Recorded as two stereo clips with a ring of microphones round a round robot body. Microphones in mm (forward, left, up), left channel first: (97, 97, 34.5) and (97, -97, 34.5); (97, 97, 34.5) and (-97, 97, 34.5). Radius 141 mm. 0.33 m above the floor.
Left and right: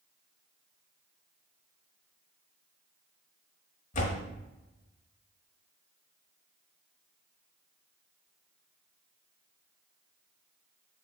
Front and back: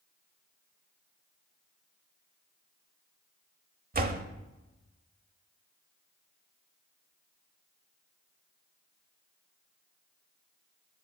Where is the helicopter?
No helicopter in this recording.